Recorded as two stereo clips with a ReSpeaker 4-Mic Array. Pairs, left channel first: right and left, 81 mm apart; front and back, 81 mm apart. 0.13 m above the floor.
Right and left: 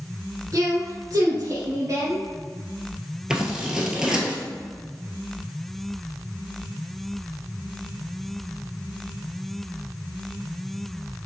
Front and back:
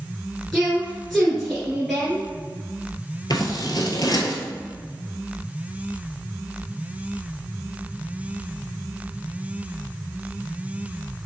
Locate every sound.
0.5 s a woman speaking: 90° left, 2.5 m
3.3 s scissors: 10° left, 1.4 m